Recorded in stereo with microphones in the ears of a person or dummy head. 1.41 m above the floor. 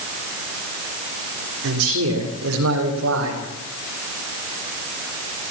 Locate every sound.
1.6 s a man speaking: 75° right (ahead or behind), 3.5 m; by 3.4 s 70° right (ahead or behind), 5 m